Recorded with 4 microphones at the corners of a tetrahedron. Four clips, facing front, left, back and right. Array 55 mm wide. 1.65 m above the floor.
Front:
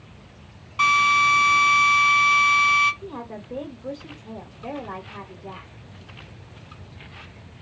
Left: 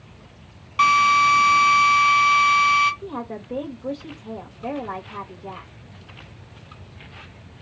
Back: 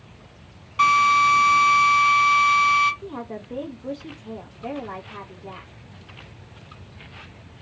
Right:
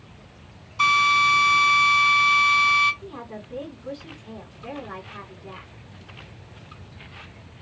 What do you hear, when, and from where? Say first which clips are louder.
0.8 s a drill: left 2 dB, back 1 dB; 90° left, 2.5 m
3.0 s a woman speaking: left 6 dB, back 2 dB; 90° left, 1.8 m